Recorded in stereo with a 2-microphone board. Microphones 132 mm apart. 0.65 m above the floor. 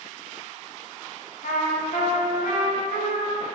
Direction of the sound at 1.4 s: 65° left (ahead or behind).